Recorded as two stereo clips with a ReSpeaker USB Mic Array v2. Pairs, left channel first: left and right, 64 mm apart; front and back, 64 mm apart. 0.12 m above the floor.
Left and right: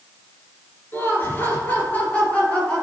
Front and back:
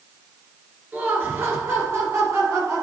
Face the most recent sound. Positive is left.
turn(degrees=160)